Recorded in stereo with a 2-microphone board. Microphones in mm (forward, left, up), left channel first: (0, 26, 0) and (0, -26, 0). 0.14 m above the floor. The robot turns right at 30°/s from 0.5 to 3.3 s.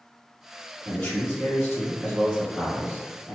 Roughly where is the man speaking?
Left.